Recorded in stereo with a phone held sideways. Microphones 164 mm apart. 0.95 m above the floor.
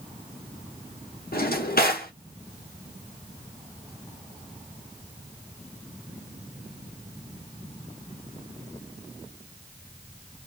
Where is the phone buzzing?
No phone buzzing in this recording.